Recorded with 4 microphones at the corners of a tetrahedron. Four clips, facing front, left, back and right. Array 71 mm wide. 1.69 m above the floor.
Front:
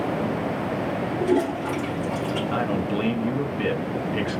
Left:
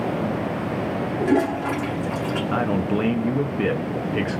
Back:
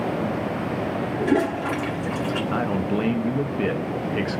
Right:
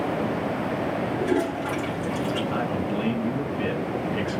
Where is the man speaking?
110° left, 0.6 m.